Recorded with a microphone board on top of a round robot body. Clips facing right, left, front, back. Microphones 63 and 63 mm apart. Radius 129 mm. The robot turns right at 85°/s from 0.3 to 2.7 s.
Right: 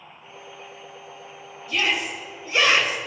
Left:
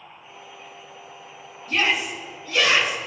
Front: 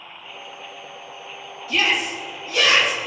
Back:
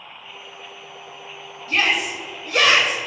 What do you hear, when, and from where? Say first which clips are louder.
1.7 s a shout: left 2 dB, back 1 dB; 135° left, 5.5 m; by 3.0 s 140° right, 5.5 m